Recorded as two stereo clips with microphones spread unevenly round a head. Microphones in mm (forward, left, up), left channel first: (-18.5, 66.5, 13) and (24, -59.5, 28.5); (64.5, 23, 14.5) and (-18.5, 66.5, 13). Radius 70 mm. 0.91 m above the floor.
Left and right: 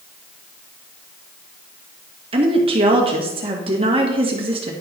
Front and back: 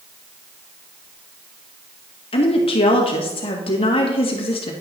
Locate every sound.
2.3 s a woman speaking: 20° right, 1.8 m